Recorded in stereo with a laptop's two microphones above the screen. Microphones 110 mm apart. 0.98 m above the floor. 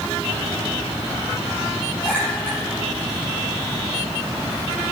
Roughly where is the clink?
Centre.